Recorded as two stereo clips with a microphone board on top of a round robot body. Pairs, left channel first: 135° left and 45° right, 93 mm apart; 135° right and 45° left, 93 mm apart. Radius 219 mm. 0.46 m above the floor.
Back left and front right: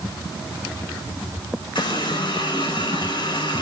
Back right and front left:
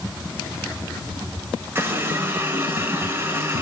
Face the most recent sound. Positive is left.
turn(degrees=110)